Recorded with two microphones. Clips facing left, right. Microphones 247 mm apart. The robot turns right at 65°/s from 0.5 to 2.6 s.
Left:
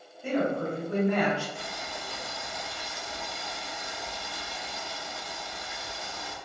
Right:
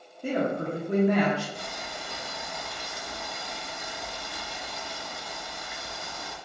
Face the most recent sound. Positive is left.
turn(degrees=-65)